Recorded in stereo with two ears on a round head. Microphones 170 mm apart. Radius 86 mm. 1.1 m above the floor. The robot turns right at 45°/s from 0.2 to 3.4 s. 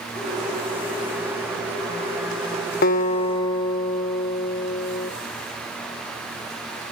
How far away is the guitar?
About 0.7 m.